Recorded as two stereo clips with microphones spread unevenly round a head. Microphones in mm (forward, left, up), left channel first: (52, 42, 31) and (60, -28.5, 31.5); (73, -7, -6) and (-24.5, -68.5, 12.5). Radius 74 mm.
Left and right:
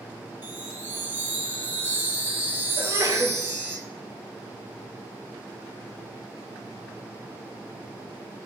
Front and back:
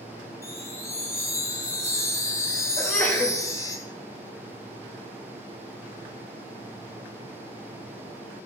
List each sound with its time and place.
0.4 s a chime: 30° right, 1.6 m
2.8 s a sneeze: 45° right, 2.5 m